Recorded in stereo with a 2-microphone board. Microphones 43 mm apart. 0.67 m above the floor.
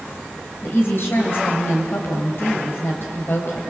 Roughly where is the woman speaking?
Left.